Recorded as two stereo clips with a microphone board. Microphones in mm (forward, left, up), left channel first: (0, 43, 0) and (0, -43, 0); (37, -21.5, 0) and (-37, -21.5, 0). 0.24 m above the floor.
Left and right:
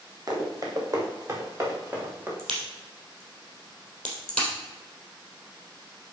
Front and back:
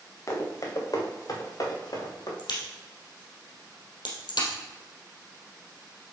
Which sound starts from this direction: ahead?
A crack, at 2.4 s.